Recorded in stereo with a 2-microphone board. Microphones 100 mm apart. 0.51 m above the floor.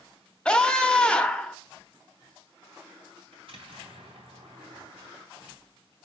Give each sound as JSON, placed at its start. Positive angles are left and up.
{"t": 0.5, "sound": "a scream", "side_deg": 10, "distance_m": 0.8}
{"t": 3.3, "sound": "an explosion", "side_deg": -65, "distance_m": 3.5}